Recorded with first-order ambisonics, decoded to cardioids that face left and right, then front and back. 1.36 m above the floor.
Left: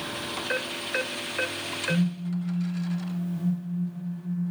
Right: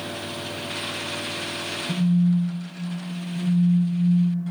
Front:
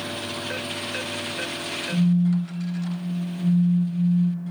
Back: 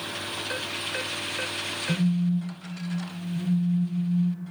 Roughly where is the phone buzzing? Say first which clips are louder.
Right 4 dB, front 3 dB; behind right.